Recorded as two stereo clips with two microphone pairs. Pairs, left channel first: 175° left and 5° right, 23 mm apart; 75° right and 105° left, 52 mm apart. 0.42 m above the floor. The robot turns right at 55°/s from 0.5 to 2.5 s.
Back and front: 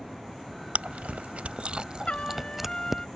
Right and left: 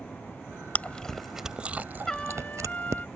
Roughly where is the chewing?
Ahead.